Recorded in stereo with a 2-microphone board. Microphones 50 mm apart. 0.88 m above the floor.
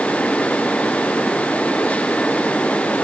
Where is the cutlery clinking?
No cutlery clinking in this recording.